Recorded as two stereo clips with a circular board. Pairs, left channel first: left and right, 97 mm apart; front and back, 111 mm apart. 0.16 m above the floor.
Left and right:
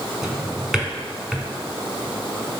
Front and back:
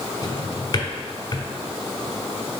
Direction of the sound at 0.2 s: 10° right.